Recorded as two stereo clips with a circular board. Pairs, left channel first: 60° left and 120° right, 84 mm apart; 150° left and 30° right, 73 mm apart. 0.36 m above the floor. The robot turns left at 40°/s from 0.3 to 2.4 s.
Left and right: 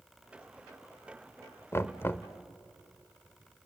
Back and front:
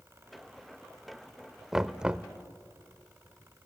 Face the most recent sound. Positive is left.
turn(degrees=20)